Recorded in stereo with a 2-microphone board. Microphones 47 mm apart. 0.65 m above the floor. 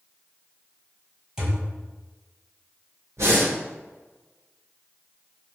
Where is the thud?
15° right (ahead or behind), 1.2 m.